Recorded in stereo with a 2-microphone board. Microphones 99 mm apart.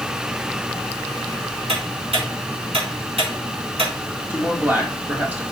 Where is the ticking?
85° right, 3.5 m.